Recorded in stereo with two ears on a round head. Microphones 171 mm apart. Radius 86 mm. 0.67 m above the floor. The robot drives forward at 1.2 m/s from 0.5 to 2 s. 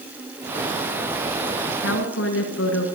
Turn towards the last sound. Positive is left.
turn(degrees=75)  # may be behind; listen again after turning